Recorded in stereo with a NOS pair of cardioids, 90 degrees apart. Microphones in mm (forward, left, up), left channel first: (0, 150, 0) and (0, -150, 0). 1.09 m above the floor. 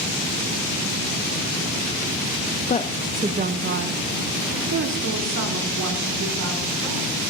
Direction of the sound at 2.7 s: 30° left.